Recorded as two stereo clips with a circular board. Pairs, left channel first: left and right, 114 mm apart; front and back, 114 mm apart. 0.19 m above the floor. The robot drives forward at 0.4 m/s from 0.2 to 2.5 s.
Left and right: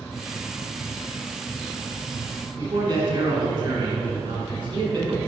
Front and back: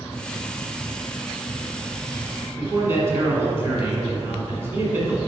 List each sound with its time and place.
2.6 s a man speaking: 120° right, 1.7 m